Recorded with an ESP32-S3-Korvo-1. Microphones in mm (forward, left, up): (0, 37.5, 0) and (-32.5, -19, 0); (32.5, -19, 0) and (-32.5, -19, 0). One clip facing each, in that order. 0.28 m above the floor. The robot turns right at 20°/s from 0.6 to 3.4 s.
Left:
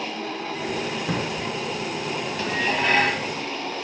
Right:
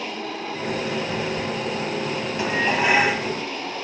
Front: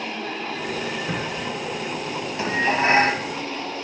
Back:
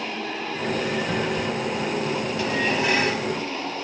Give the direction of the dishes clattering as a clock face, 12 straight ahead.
2 o'clock.